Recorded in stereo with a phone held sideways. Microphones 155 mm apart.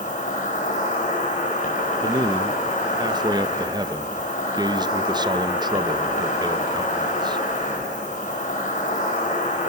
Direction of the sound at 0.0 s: 55° left (ahead or behind).